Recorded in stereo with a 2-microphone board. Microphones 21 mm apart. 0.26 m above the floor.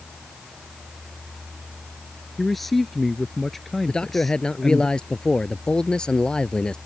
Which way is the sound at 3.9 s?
50° left (ahead or behind).